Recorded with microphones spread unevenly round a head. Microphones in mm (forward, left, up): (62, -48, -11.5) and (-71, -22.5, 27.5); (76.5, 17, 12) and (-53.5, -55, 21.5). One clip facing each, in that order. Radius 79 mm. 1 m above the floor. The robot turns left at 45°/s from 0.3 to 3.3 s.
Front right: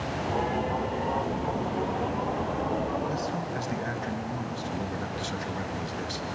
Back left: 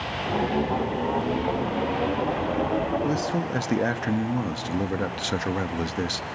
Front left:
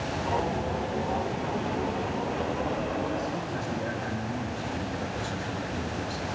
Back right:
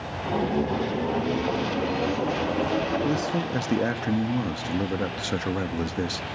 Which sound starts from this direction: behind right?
A man speaking, at 3.0 s.